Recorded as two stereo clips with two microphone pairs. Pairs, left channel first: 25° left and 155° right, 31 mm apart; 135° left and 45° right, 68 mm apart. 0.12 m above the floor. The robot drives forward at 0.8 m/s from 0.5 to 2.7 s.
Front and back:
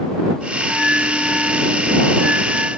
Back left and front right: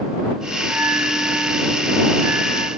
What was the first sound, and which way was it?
A bell, 110° right.